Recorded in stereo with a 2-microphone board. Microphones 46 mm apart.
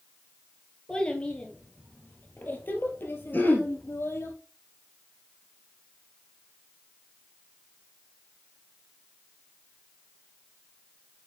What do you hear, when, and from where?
0.9 s a child speaking: 20° left (ahead or behind), 2.5 m; by 4.3 s 65° left (ahead or behind), 3 m
3.3 s throat clearing: 50° left (ahead or behind), 2.5 m